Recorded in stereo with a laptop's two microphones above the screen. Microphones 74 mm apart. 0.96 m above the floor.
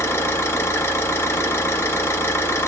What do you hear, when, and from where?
0.0 s an engine running: 35° left (ahead or behind), 0.8 m